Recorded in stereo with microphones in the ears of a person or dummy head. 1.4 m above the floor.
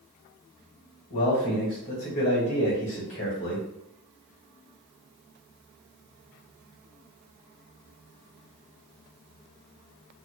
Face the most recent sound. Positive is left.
turn(degrees=45)  # may be behind; listen again after turning